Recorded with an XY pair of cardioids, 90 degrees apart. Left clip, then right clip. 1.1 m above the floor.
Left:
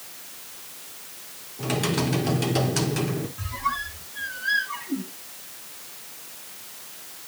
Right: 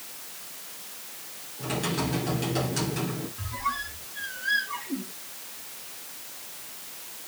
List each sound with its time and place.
1.6 s typing on a keyboard: 55° left, 3.5 m
3.4 s a squeak: 30° left, 3.5 m